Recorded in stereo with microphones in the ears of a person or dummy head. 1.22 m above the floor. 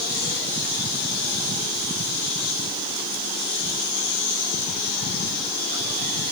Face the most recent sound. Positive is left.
No sound to turn to.